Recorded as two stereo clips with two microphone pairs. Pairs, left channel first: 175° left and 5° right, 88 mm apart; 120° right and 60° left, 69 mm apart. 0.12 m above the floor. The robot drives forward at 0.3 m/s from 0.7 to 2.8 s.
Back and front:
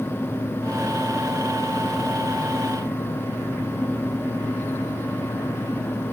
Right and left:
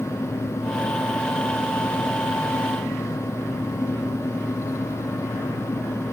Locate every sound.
Only background noise.